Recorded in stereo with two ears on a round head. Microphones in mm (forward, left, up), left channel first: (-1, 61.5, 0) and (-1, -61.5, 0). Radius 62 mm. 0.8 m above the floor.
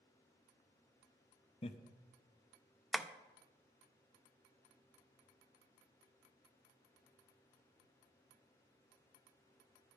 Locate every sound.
1.6 s laughter: 45° left (ahead or behind), 0.9 m
2.9 s tapping: 5° right (ahead or behind), 0.6 m